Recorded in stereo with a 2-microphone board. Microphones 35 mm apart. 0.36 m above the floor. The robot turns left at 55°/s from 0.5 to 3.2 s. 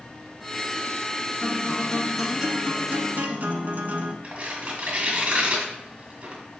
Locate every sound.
1.4 s a guitar: 40° left, 0.8 m; by 4.1 s 60° right, 0.8 m
4.2 s tearing paper: 45° right (ahead or behind), 1.6 m